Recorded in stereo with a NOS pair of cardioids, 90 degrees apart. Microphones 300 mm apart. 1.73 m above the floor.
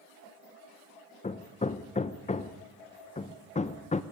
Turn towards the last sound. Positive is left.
turn(degrees=25)